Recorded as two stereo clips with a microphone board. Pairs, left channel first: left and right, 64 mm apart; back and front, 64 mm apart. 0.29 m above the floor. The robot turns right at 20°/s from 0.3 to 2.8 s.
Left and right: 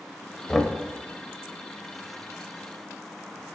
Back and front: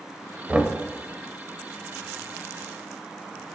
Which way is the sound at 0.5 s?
15° left.